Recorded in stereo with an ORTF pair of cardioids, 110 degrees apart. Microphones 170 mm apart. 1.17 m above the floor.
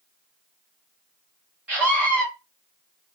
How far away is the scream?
About 0.7 m.